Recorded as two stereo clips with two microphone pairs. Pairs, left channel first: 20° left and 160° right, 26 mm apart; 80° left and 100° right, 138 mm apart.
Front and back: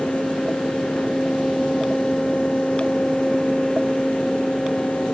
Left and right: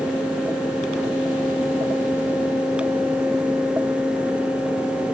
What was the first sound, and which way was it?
Only background noise.